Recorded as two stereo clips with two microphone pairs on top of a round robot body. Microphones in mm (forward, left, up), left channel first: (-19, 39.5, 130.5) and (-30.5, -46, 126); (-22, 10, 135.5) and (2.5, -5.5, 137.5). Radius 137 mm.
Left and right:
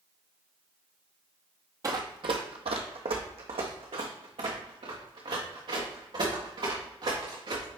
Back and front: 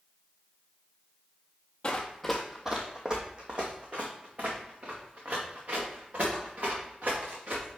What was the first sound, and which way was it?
Running footsteps, 145° right.